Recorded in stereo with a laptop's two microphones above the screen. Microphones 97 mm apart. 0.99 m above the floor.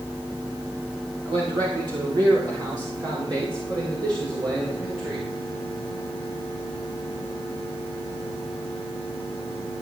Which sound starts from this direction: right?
A man speaking, at 1.2 s.